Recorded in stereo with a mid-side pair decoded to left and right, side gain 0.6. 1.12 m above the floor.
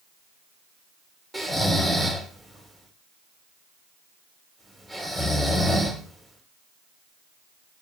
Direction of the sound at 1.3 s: 15° right.